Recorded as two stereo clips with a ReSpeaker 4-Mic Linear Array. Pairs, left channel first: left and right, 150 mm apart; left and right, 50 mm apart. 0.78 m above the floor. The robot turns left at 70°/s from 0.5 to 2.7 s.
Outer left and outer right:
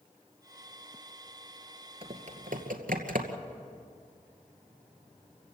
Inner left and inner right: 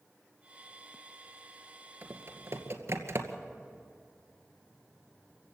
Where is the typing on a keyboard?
40° right (ahead or behind), 2 m; by 3.4 s 75° right (ahead or behind), 2 m.